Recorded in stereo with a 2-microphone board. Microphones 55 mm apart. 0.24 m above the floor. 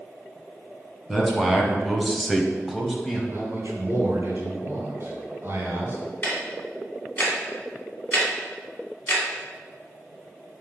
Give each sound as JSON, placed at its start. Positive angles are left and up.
{"t": 1.1, "sound": "a man speaking", "side_deg": -5, "distance_m": 2.0}
{"t": 3.3, "sound": "a man speaking", "side_deg": -50, "distance_m": 2.5}
{"t": 6.2, "sound": "ticking", "side_deg": 30, "distance_m": 2.5}